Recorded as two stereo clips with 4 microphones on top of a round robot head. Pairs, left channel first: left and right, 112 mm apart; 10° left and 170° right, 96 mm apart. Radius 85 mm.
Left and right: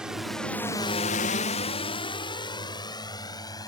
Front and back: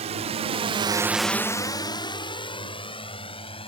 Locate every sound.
0.0 s a drone: 175° right; by 3.7 s 35° left